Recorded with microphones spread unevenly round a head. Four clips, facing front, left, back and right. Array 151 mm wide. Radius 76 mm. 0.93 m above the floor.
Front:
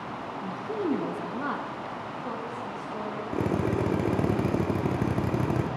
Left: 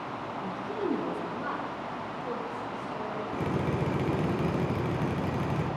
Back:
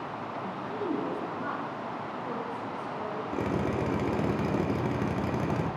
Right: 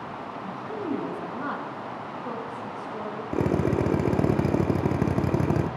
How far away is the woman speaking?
About 1.0 m.